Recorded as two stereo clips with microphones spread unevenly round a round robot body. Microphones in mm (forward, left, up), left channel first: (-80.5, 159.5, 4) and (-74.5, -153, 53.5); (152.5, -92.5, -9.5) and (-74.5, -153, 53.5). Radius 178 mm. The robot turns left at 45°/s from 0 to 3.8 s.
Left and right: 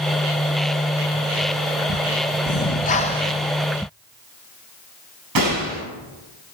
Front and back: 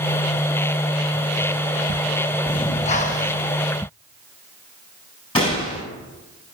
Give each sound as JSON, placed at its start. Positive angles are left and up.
{"t": 2.5, "sound": "breathing", "azimuth_deg": 65, "distance_m": 0.6}
{"t": 5.3, "sound": "a gunshot", "azimuth_deg": -50, "distance_m": 5.5}